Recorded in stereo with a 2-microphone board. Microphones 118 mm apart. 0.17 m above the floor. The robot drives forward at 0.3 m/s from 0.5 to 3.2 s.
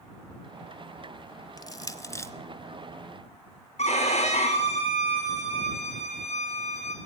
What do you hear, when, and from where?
1.6 s crushing: 30° left (ahead or behind), 0.5 m; by 2.3 s 25° left (ahead or behind), 0.7 m
3.8 s a violin: 70° left (ahead or behind), 3 m